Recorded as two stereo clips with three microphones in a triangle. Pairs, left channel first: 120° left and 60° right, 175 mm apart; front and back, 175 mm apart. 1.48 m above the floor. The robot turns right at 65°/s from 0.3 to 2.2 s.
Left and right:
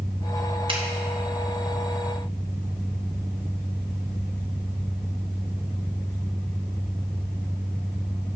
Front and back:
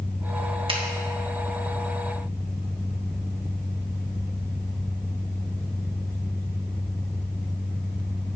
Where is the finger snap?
120° right, 1.6 m; by 0.8 s 110° right, 1.6 m.